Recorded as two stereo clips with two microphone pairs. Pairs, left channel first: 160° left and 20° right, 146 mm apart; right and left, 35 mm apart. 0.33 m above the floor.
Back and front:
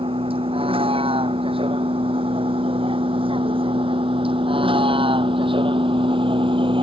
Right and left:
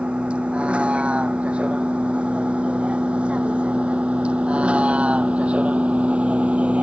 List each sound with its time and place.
0.0 s a vehicle: 30° left; by 6.8 s 35° left